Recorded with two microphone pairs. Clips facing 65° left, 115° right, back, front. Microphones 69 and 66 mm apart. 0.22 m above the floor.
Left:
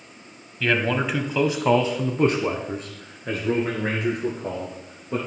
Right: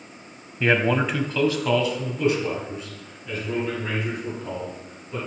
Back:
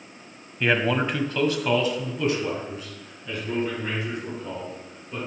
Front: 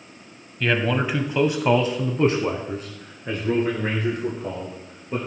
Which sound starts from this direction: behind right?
A man speaking, at 0.6 s.